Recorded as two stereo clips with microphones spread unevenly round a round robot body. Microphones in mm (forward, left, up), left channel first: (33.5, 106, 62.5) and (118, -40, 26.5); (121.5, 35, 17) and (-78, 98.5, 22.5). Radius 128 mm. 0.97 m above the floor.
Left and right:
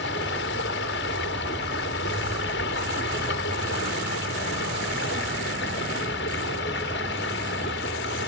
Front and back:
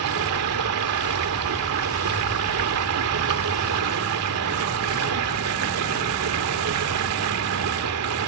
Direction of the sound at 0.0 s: 170° left.